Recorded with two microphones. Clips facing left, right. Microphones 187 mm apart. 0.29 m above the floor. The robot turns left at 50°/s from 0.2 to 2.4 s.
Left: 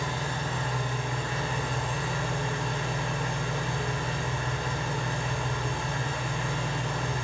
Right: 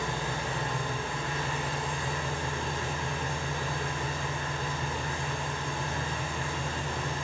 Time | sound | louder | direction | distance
0.0 | an engine running | even | 155° right | 1.3 m